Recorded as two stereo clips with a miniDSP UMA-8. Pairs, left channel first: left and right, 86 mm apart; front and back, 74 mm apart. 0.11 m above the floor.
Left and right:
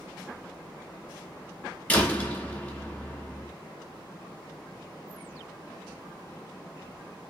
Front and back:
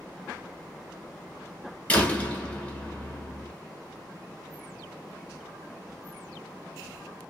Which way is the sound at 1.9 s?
45° left.